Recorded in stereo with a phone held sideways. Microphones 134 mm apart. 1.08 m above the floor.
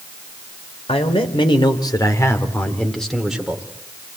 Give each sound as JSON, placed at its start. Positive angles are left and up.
{"t": 0.9, "sound": "a man speaking", "side_deg": 45, "distance_m": 3.0}